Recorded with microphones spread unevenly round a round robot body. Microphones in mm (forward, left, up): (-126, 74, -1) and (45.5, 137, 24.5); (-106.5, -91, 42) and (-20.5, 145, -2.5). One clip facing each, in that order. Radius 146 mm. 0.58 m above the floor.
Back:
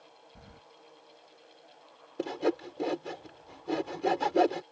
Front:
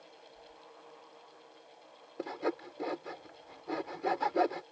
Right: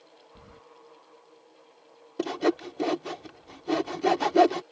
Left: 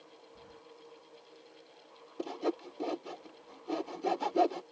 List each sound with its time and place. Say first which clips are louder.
0.3 s keys jangling: back 1 dB, right 4 dB; 165° right
2.2 s sawing: back 6 dB, right 9 dB; 105° right